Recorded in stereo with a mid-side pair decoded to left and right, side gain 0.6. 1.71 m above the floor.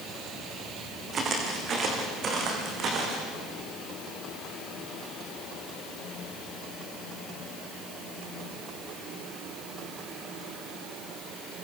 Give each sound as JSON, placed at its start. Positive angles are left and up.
{"t": 1.1, "sound": "footsteps", "azimuth_deg": -40, "distance_m": 6.0}